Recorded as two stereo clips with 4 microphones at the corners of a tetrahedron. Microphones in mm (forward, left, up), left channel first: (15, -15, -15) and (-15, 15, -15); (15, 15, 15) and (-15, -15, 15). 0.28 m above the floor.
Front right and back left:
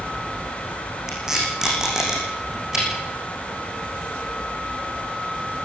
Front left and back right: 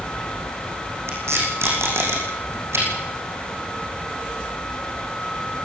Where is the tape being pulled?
150° right, 7.5 m.